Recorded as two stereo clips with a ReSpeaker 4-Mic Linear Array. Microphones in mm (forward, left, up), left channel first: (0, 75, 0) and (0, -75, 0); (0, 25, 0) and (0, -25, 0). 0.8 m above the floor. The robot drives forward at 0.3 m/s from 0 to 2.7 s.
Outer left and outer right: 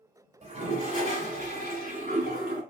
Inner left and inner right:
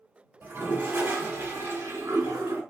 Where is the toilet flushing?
45° right (ahead or behind), 1.6 m; by 2.6 s 65° right (ahead or behind), 1.2 m.